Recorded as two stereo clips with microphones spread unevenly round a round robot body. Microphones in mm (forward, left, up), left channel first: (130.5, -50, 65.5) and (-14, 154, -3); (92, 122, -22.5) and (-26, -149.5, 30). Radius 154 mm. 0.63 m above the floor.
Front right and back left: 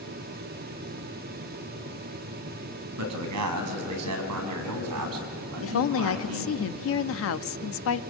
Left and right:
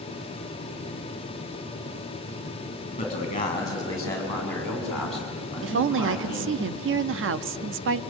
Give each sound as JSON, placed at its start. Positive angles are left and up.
{"t": 3.0, "sound": "a man speaking", "azimuth_deg": 140, "distance_m": 5.0}
{"t": 5.6, "sound": "a woman speaking", "azimuth_deg": -75, "distance_m": 0.7}